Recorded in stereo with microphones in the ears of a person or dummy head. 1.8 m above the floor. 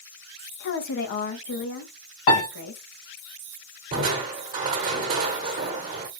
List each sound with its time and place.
0.6 s a woman speaking: 55° left (ahead or behind), 1.5 m
2.3 s a piano: 35° left (ahead or behind), 2 m
3.9 s crushing: 40° right (ahead or behind), 1.2 m